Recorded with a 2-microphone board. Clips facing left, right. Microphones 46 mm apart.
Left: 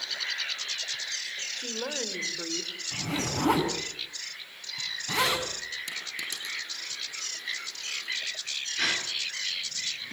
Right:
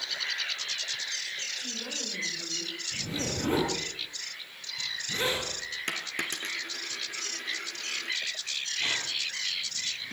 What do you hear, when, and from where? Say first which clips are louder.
1.6 s a woman speaking: left 4 dB; 55° left (ahead or behind), 4 m; by 2.7 s 60° left (ahead or behind), 3.5 m
2.9 s a zipper: left 4 dB; 85° left, 8 m
5.9 s a dropped coin: right 3 dB; 45° right (ahead or behind), 3.5 m
8.8 s a gasp: left 3 dB; 80° left, 7.5 m